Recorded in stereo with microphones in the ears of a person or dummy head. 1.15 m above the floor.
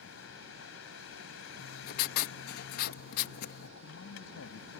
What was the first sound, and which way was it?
A vehicle, 75° left (ahead or behind).